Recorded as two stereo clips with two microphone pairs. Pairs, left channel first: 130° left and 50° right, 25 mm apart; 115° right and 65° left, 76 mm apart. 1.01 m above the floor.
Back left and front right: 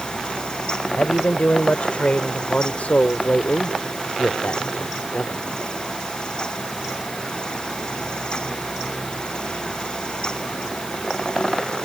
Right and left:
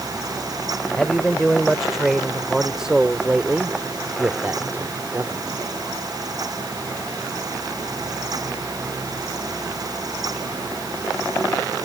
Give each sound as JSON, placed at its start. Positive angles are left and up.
{"t": 1.0, "sound": "a man speaking", "azimuth_deg": 160}